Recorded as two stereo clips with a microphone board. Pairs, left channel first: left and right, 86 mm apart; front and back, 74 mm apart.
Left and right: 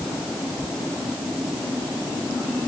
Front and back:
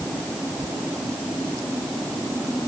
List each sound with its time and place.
Only background noise.